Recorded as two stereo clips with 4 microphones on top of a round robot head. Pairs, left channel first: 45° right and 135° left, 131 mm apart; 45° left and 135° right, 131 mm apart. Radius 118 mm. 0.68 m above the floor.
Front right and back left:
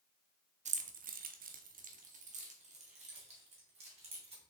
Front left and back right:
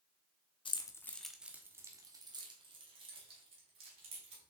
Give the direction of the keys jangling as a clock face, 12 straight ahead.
9 o'clock.